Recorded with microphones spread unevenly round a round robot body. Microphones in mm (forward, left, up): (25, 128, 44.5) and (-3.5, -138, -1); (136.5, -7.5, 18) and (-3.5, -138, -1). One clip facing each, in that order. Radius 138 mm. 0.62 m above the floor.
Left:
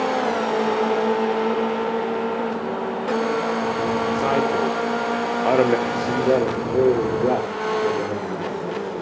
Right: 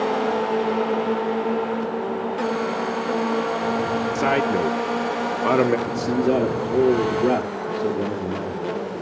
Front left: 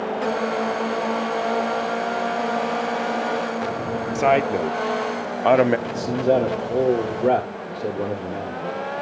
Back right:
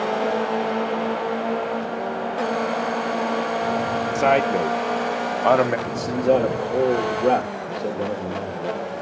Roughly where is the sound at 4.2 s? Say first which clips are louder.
Right 2 dB, even; ahead right.